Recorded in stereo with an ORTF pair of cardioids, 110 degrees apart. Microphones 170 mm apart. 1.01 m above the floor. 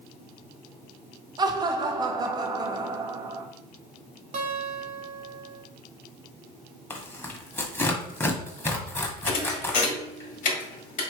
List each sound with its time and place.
1.4 s laughter: 25° right, 0.9 m
4.3 s a guitar: 45° right, 1.2 m
6.9 s tearing paper: 15° left, 1.0 m
9.3 s a thud: 55° left, 1.5 m